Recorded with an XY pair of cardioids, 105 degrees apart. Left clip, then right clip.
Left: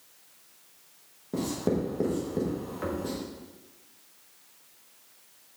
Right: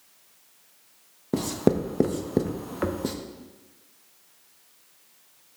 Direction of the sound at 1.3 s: 65° right.